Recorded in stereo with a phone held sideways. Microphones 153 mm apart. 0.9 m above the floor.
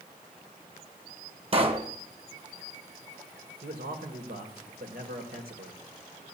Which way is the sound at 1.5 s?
40° right (ahead or behind).